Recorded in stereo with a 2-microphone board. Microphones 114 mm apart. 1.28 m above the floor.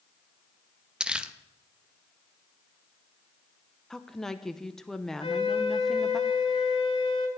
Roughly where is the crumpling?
Centre.